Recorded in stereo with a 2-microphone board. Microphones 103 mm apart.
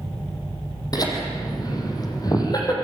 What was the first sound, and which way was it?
Laughter, 35° left (ahead or behind).